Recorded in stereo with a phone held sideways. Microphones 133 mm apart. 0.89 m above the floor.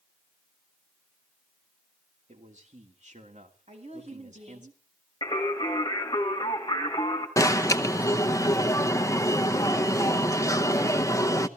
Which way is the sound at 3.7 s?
55° right (ahead or behind).